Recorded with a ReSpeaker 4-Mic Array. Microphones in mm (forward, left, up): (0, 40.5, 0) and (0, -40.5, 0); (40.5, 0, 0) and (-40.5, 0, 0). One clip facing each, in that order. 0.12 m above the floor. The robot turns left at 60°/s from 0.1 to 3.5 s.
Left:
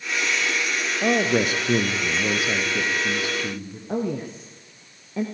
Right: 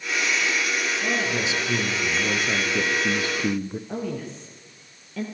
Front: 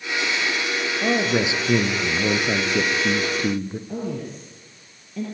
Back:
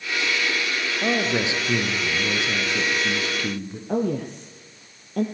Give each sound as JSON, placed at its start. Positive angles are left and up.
{"t": 1.0, "sound": "a man speaking", "azimuth_deg": 95, "distance_m": 2.0}
{"t": 3.9, "sound": "a woman speaking", "azimuth_deg": 150, "distance_m": 2.5}